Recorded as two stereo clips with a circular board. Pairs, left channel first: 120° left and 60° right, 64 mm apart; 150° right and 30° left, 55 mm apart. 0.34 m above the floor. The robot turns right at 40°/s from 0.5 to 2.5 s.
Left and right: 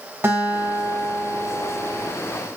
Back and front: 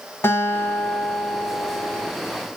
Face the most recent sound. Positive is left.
turn(degrees=-25)